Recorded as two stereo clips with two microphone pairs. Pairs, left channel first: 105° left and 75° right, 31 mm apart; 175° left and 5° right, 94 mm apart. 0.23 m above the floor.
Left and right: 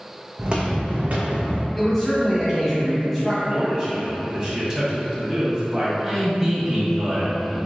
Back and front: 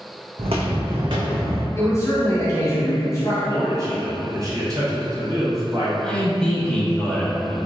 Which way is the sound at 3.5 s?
10° right.